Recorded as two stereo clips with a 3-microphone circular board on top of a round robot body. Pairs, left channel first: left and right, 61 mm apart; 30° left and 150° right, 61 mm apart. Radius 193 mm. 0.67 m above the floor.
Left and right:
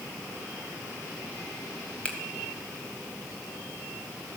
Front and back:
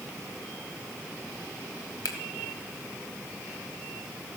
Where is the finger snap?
15° left, 1.5 m.